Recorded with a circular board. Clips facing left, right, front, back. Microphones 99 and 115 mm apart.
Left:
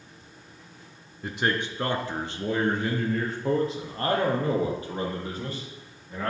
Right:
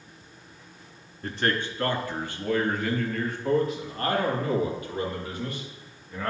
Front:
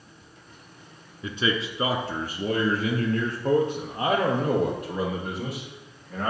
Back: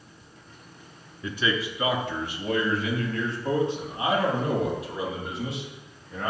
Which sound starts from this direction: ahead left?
A man speaking, at 1.2 s.